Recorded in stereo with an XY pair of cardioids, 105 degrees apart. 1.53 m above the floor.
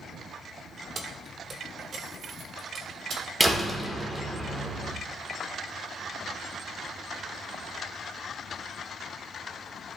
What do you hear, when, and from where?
0.9 s keys jangling: 45° right, 1.1 m; by 3.2 s 50° right, 2.5 m
3.4 s a door slam: 15° right, 1.2 m